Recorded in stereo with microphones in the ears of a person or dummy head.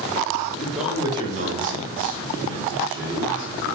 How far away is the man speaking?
About 0.8 m.